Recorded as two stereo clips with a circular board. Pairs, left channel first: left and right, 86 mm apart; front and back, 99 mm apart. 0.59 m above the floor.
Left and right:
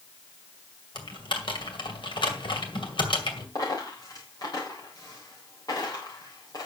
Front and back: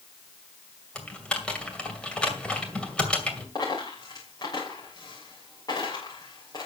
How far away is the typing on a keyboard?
About 2.5 m.